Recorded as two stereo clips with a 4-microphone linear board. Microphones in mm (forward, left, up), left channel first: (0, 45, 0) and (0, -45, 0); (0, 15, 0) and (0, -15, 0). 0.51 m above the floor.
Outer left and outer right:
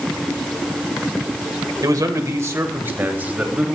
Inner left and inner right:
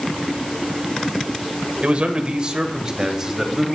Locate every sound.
1.8 s a man speaking: 45° right (ahead or behind), 1.5 m; by 3.8 s 15° right (ahead or behind), 2 m